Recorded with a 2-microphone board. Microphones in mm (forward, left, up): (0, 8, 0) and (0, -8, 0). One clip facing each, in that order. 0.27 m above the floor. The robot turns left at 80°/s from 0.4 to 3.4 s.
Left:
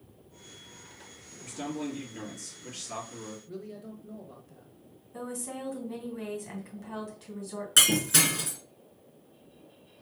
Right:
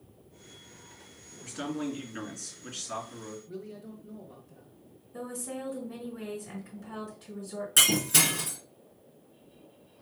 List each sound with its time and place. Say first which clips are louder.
1.4 s a man speaking: right 1 dB; 45° right, 3 m; by 3.4 s 160° left, 3 m
3.5 s a man speaking: even; 20° left (ahead or behind), 1.1 m
5.1 s a woman speaking: even; 25° left (ahead or behind), 2.5 m
7.8 s breaking glass: left 1 dB; 30° left (ahead or behind), 2.5 m